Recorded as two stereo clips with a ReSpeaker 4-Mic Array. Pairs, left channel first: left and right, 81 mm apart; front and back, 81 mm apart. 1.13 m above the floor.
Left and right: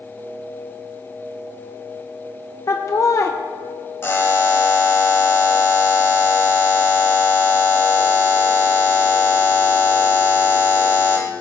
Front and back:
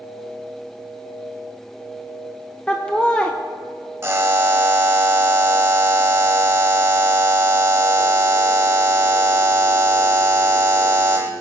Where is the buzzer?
135° left, 1.2 m.